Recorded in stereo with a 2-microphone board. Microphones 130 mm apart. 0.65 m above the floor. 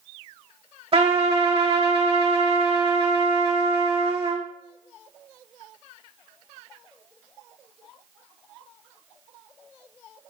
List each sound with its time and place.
0.9 s a trumpet: 45° right (ahead or behind), 1.0 m